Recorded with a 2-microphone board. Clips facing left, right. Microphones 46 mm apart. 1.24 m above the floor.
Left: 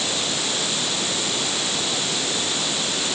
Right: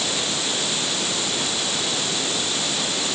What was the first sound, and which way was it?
Only background noise.